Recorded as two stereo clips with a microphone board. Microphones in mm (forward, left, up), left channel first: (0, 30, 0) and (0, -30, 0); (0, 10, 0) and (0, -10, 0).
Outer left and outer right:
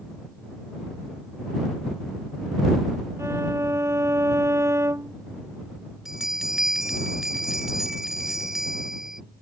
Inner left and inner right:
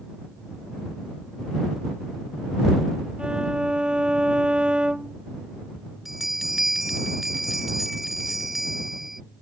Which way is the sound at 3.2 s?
55° right (ahead or behind).